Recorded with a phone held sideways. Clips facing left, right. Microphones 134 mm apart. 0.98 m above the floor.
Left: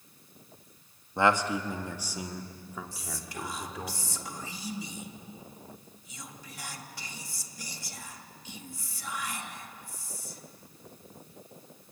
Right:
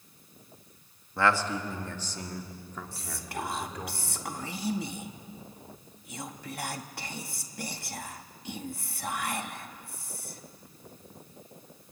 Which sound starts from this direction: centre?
A man speaking, at 1.2 s.